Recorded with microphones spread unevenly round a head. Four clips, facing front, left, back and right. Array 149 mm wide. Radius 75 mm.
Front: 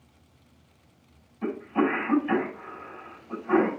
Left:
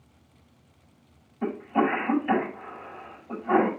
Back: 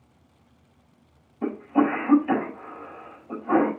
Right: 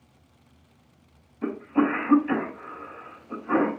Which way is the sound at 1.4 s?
145° left.